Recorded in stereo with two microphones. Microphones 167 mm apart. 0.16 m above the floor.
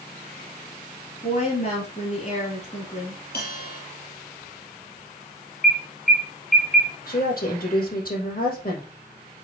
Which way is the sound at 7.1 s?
60° left (ahead or behind).